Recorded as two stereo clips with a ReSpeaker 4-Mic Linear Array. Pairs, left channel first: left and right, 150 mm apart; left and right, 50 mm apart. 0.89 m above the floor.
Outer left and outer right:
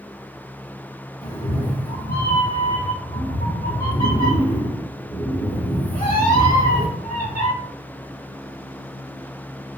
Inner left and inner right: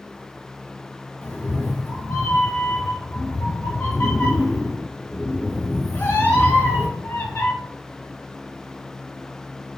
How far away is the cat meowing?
About 1.2 m.